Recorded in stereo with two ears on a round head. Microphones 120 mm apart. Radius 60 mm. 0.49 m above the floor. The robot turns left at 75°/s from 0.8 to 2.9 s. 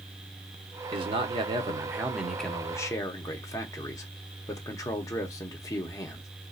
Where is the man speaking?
75° right, 0.9 m; by 6.3 s 135° left, 0.9 m.